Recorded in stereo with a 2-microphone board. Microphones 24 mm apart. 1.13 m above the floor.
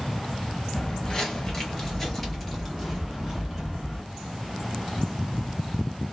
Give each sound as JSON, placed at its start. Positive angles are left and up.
{"t": 0.7, "sound": "footsteps", "side_deg": 35, "distance_m": 1.3}